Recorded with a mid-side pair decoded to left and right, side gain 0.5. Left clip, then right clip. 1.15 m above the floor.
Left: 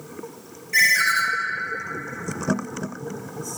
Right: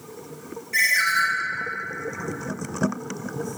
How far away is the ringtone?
About 0.5 m.